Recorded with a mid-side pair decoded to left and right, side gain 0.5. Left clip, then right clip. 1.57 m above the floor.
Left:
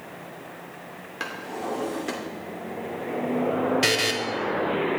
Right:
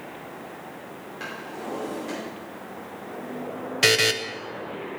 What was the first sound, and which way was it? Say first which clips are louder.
A drawer: left 4 dB; 55° left.